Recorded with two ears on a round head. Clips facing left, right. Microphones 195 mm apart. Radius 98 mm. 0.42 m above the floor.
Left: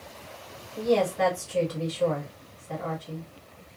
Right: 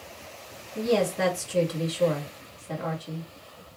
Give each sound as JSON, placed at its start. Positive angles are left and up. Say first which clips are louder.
{"t": 0.8, "sound": "a woman speaking", "louder": "left 1 dB", "side_deg": -50, "distance_m": 1.6}